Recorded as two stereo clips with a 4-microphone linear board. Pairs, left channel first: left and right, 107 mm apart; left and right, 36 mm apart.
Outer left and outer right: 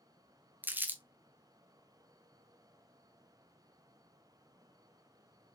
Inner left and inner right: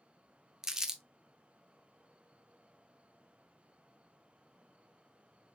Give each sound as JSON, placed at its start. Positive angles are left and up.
{"t": 0.6, "sound": "crumpling", "side_deg": -15, "distance_m": 0.6}